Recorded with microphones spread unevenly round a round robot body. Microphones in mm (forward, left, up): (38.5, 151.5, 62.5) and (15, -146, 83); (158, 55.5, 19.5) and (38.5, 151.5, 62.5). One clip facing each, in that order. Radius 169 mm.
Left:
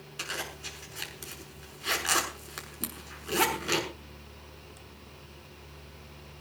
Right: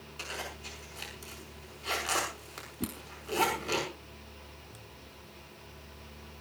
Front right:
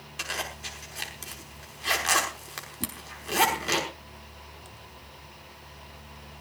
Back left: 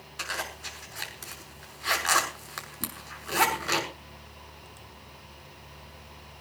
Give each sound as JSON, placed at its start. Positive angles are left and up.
{"t": 0.2, "sound": "a zipper", "azimuth_deg": 30, "distance_m": 6.5}
{"t": 2.8, "sound": "a whoosh", "azimuth_deg": -130, "distance_m": 0.6}